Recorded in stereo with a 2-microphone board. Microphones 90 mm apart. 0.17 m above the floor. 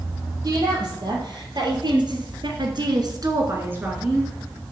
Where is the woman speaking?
45° right (ahead or behind), 4.5 m; by 4.3 s 5° right (ahead or behind), 2.5 m.